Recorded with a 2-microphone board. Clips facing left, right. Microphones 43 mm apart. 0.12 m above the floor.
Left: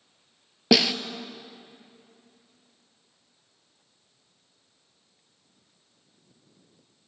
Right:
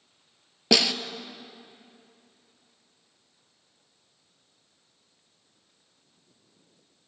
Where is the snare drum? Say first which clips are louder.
Left 2 dB; 10° left (ahead or behind), 0.6 m.